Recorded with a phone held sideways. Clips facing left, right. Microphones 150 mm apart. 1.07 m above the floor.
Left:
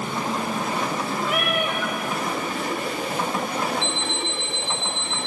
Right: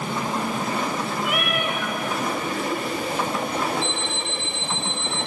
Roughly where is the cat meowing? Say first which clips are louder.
Left 2 dB; left.